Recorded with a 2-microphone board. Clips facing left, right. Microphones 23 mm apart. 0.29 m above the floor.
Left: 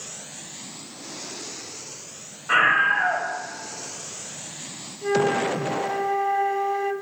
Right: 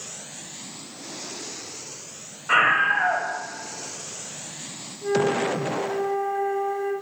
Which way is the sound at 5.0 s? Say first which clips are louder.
Left 1 dB; 60° left (ahead or behind).